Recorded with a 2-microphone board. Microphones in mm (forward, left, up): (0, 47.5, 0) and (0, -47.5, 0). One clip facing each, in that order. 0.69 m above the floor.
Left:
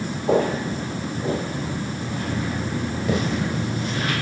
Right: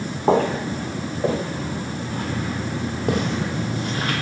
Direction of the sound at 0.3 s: 70° right (ahead or behind).